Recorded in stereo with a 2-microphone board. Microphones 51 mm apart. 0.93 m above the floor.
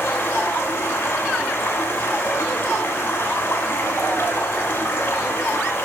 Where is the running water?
55° left (ahead or behind), 1.3 m.